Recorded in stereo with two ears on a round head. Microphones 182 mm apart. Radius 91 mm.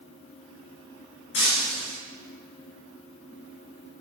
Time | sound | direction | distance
1.3 | breaking glass | 65° left (ahead or behind) | 3 m